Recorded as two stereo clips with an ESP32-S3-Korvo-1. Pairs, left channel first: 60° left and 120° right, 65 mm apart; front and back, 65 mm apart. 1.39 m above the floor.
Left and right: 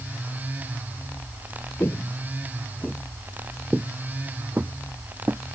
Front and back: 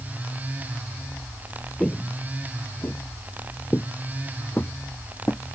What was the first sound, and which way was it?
Footsteps, 70° left.